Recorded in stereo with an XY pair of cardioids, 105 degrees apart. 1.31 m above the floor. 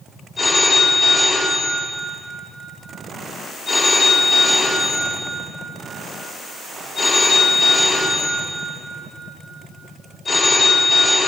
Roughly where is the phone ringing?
Ahead left.